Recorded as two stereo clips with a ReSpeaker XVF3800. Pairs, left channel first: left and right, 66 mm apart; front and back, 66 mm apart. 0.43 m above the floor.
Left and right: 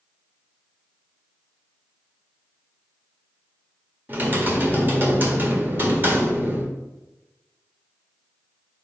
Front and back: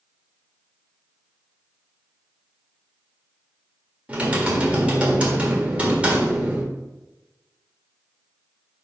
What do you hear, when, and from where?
4.1 s typing on a keyboard: 120° right, 1.5 m